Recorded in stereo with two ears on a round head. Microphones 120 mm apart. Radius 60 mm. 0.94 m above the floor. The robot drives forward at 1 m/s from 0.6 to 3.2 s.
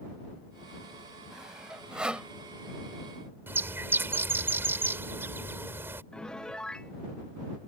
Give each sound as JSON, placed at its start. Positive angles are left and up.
{"t": 1.3, "sound": "sawing", "side_deg": -5}
{"t": 3.5, "sound": "a bird", "side_deg": -15}
{"t": 6.1, "sound": "a piano", "side_deg": 5}